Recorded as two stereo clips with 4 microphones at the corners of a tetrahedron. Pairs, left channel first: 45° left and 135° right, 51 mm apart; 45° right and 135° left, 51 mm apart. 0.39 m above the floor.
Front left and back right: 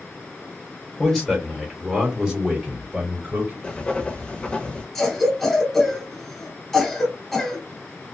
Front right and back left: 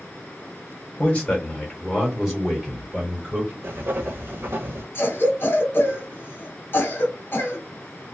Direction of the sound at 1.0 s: 15° right.